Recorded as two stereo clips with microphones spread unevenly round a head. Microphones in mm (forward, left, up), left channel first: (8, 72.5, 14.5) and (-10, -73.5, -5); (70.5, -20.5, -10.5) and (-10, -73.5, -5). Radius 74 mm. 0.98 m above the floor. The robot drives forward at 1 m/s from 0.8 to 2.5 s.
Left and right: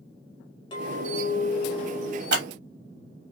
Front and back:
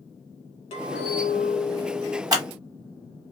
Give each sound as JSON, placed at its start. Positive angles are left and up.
{"t": 0.7, "sound": "a clink", "azimuth_deg": 25, "distance_m": 1.2}
{"t": 2.3, "sound": "scissors", "azimuth_deg": -95, "distance_m": 1.2}